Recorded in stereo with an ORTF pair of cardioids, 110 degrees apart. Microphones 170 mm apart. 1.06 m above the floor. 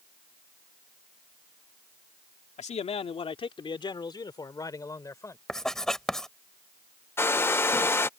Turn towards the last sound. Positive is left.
turn(degrees=15)